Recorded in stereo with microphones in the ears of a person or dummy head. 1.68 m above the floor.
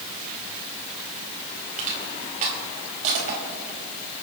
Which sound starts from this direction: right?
Crushing, at 1.8 s.